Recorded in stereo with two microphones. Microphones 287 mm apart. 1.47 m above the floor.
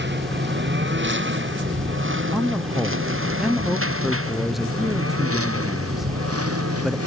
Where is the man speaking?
Centre (ahead or behind).